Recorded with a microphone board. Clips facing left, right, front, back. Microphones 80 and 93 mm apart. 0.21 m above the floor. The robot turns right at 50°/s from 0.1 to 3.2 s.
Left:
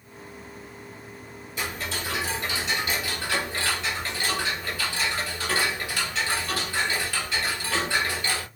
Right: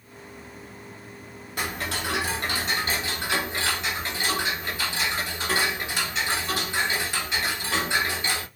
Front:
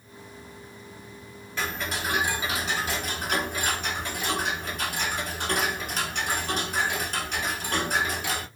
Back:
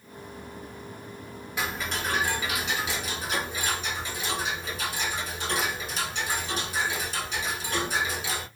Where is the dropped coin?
I don't hear a dropped coin.